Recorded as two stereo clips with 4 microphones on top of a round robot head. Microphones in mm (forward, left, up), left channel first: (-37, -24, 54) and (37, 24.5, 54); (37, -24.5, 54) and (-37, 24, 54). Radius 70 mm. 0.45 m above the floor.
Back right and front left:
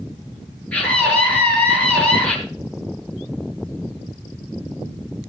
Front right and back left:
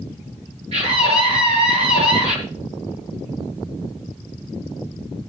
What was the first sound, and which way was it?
A scream, 135° left.